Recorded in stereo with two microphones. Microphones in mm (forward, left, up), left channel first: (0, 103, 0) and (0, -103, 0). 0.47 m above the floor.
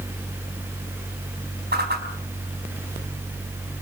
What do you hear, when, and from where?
1.7 s a whoosh: 50° right (ahead or behind), 4 m